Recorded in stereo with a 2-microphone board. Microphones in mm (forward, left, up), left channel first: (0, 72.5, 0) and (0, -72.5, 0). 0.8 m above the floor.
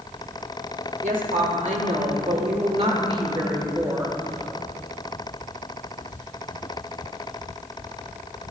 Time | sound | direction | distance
1.0 | a woman speaking | 75° right (ahead or behind) | 3.5 m